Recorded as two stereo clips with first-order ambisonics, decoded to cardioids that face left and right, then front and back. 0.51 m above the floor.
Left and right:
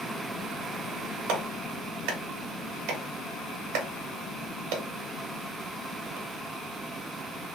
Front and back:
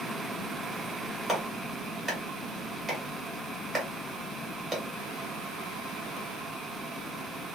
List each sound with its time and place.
1.3 s a clap: 90° right, 1.6 m